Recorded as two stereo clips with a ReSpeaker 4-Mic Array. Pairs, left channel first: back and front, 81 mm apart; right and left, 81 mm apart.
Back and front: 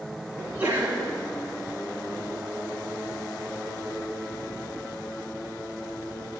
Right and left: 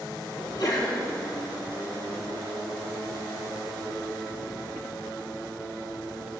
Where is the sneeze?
65° right, 3 m.